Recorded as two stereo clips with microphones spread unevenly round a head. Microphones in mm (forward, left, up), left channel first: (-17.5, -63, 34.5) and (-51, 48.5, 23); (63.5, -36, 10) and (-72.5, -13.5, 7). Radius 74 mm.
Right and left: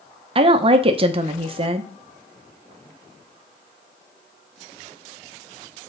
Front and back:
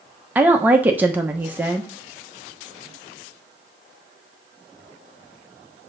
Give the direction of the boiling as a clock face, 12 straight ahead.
I don't hear boiling.